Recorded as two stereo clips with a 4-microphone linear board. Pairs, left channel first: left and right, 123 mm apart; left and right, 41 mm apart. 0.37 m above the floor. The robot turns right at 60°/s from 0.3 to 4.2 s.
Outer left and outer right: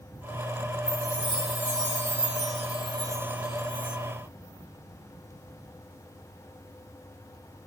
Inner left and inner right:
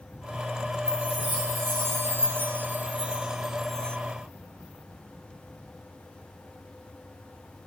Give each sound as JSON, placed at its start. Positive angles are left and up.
{"t": 0.9, "sound": "a chime", "azimuth_deg": -160, "distance_m": 1.0}